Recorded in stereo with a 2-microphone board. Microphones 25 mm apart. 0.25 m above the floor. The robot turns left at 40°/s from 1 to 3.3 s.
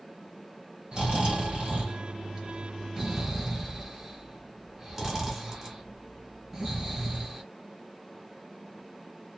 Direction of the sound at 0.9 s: 40° right (ahead or behind).